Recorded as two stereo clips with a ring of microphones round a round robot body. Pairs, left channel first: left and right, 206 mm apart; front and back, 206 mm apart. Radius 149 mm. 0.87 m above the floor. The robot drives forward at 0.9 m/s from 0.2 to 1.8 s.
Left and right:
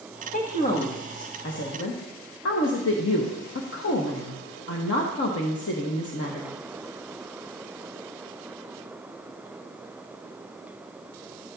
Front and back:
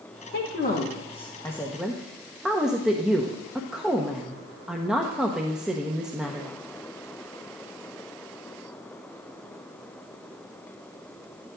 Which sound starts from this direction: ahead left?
A woman speaking, at 0.3 s.